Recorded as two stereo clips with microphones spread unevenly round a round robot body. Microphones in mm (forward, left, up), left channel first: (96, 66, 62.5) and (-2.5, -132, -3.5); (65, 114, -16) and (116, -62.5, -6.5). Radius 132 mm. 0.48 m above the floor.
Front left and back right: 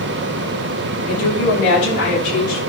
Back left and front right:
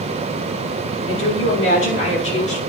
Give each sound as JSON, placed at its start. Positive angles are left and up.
{"t": 1.1, "sound": "a woman speaking", "azimuth_deg": 115, "distance_m": 5.5}